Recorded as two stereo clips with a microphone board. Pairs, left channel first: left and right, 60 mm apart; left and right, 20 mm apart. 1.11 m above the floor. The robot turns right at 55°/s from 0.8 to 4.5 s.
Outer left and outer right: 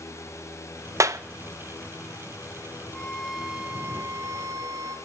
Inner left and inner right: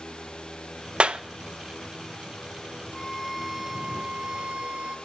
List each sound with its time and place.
1.0 s a clap: 55° right (ahead or behind), 0.6 m; by 1.2 s 65° right (ahead or behind), 0.6 m
2.9 s a violin: 165° left, 1.6 m; by 5.0 s 105° right, 1.6 m